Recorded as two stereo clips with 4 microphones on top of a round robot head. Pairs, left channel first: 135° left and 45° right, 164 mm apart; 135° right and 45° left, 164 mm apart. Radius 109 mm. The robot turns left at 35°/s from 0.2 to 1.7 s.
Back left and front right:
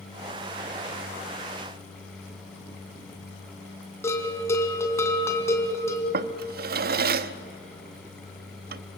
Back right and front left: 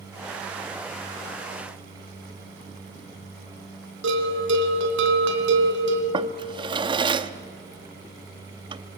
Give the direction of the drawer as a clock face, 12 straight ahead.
1 o'clock.